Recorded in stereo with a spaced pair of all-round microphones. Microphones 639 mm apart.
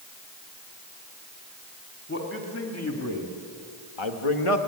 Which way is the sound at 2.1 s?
15° left (ahead or behind).